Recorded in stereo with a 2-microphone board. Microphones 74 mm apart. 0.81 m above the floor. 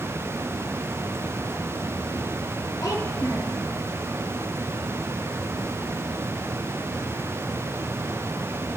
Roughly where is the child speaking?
Left.